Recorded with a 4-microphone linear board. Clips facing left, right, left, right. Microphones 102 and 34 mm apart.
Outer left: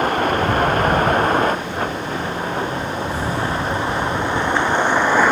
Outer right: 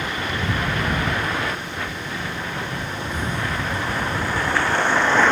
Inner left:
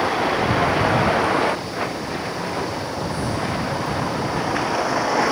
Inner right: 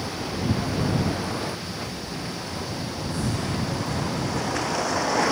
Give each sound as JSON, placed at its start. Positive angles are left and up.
{"t": 0.0, "sound": "a vehicle", "side_deg": 50}